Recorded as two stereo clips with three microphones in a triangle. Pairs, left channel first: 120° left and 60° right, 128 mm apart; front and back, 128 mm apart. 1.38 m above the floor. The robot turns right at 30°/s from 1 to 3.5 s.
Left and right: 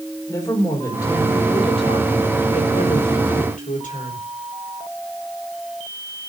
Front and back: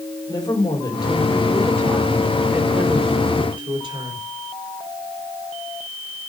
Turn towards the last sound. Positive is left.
turn(degrees=130)